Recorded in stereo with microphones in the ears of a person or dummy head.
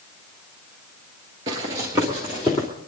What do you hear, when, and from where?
1.5 s running footsteps: 20° right (ahead or behind), 1.7 m; by 2.7 s centre (ahead or behind), 1.5 m